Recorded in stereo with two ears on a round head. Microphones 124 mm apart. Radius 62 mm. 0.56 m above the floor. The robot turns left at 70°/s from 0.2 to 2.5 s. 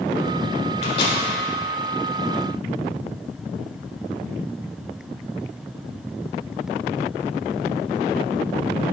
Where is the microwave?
45° left (ahead or behind), 1.2 m; by 1.2 s 30° left (ahead or behind), 1.2 m.